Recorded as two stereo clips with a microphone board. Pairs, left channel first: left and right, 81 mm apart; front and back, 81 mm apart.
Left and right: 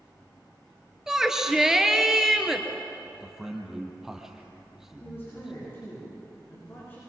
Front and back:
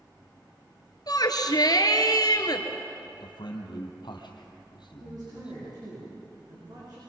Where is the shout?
10° right, 2.5 m.